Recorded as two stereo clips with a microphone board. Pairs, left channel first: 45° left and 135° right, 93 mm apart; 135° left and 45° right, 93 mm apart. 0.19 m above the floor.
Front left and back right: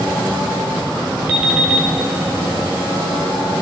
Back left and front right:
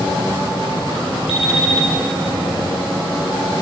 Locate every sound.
1.3 s an alarm clock: 155° left, 2.5 m